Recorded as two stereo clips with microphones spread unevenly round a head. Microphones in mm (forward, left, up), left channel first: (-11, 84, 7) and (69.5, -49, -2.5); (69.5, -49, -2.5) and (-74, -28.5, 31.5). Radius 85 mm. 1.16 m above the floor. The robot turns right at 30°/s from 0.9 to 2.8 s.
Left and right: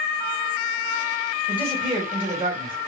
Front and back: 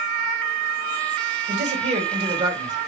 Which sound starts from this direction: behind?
A man speaking, at 1.5 s.